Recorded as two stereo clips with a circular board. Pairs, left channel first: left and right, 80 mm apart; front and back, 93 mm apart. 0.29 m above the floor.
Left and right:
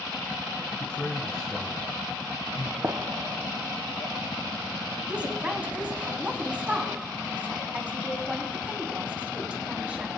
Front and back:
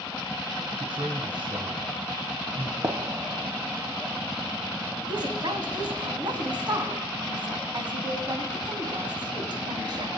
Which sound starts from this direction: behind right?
A gunshot, at 2.8 s.